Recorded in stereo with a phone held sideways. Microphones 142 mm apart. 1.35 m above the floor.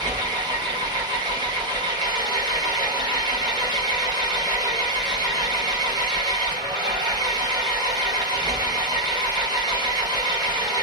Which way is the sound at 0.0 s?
30° right (ahead or behind).